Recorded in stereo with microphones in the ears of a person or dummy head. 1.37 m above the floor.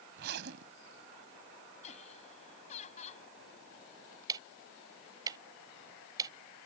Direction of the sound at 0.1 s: 60° right (ahead or behind).